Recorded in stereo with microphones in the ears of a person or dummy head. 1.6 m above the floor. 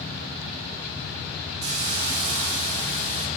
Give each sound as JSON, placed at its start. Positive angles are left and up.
{"t": 1.6, "sound": "a hiss", "side_deg": -40, "distance_m": 2.0}